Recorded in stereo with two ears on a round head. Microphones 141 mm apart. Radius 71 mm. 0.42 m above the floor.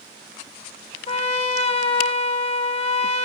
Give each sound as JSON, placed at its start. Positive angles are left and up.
{"t": 1.1, "sound": "a trumpet", "side_deg": 40, "distance_m": 0.9}